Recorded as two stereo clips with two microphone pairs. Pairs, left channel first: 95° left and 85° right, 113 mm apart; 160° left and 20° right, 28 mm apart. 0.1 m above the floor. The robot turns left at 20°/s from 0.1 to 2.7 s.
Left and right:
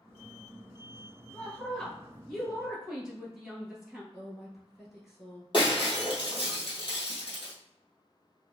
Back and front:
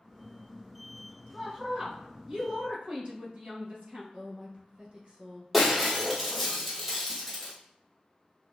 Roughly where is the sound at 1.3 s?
Ahead left.